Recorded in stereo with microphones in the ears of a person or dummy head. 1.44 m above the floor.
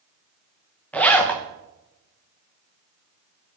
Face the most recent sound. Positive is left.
turn(degrees=5)  # may be behind; listen again after turning